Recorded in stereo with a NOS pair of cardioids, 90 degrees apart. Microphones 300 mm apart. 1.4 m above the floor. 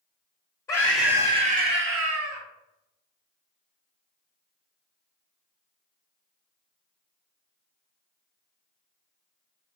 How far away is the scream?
About 0.8 m.